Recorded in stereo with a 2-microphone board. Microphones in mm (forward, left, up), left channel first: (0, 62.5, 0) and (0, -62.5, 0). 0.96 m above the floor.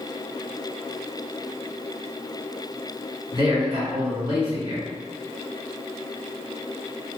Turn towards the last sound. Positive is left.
turn(degrees=-35)  # may be behind; listen again after turning